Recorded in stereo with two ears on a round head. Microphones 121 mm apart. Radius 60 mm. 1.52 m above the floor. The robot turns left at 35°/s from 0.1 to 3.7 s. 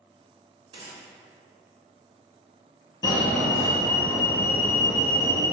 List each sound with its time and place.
0.7 s a gunshot: 35° right (ahead or behind), 0.7 m; by 1.0 s 45° right (ahead or behind), 0.7 m
3.0 s a fire alarm: 30° left (ahead or behind), 0.9 m; by 5.4 s 25° left (ahead or behind), 0.9 m